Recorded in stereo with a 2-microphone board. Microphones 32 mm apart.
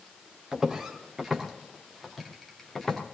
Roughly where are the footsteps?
Centre.